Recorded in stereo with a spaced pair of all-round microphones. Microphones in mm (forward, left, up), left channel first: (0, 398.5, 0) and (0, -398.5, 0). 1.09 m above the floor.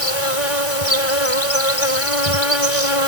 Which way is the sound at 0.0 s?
40° left (ahead or behind).